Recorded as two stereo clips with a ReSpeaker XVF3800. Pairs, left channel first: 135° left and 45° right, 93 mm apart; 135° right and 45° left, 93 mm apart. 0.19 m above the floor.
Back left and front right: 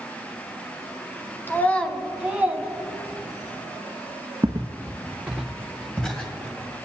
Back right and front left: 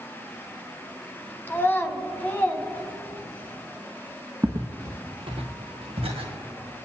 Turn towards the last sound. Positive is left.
turn(degrees=60)